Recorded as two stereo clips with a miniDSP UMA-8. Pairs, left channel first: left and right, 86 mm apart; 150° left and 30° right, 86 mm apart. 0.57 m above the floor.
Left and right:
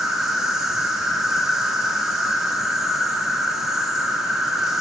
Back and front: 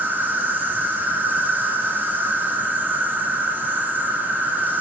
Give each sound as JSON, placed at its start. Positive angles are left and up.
{"t": 0.0, "sound": "an insect", "azimuth_deg": -15, "distance_m": 0.9}